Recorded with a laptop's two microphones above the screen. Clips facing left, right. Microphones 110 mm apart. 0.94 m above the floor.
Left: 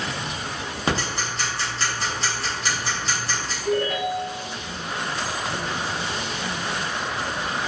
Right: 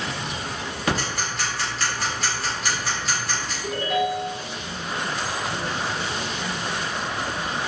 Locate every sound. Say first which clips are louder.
0.9 s ticking: even; 30° left (ahead or behind), 0.8 m
3.6 s a ringtone: left 1 dB; 10° right (ahead or behind), 0.8 m